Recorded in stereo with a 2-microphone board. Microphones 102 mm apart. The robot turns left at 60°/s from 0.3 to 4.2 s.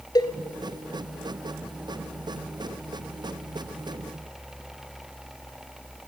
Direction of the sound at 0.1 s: 45° left (ahead or behind).